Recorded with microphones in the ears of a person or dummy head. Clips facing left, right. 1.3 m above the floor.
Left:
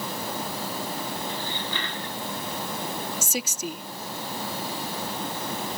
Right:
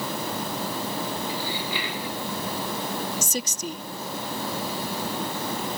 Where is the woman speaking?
10° left (ahead or behind).